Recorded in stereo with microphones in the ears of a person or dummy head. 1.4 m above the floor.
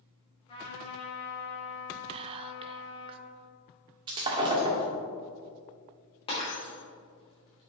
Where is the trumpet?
30° left (ahead or behind), 3 m.